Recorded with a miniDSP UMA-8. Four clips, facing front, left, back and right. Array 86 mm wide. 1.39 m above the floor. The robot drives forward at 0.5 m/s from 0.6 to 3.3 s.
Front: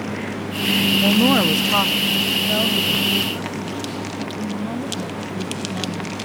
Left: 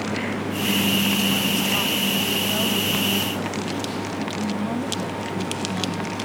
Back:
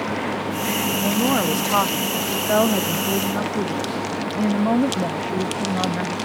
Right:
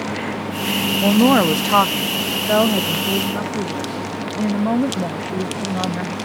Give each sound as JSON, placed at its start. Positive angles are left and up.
{"t": 1.0, "sound": "a woman speaking", "azimuth_deg": -70}